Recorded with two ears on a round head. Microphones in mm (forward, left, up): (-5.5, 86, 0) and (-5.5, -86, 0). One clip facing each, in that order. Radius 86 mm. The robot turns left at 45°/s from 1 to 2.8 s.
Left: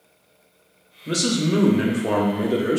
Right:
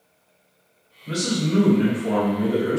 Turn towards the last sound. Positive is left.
turn(degrees=40)